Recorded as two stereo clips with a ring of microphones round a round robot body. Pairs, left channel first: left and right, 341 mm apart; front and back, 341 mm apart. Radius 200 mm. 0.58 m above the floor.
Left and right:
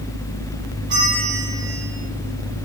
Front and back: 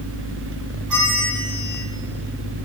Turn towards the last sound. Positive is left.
turn(degrees=-150)